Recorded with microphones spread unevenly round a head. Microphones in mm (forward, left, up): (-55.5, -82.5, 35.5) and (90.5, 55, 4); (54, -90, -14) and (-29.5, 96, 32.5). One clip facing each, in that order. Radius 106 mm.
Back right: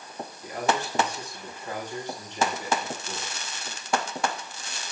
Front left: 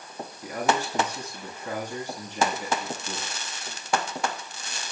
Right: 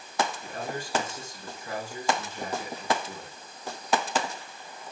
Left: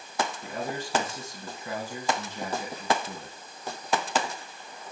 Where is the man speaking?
85° left, 9.5 m.